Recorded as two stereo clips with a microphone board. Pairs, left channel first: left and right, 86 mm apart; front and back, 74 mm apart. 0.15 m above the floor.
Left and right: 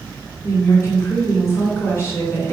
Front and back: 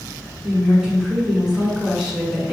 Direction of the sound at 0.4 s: 105° left.